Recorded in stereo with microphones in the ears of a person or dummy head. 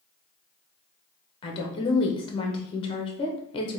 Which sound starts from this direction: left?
A woman speaking, at 1.4 s.